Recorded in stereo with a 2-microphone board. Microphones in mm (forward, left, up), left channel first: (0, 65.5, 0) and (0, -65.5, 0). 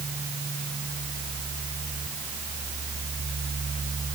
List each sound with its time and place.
Only background noise.